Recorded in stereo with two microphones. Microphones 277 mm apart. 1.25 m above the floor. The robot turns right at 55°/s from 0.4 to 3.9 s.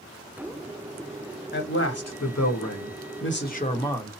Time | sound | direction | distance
1.5 | a man speaking | 40° left | 0.9 m